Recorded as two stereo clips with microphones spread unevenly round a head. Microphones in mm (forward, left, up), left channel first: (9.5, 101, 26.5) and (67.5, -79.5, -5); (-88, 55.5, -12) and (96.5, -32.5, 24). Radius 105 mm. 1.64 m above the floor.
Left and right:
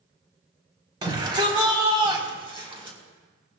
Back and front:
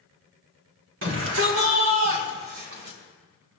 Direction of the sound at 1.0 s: Straight ahead.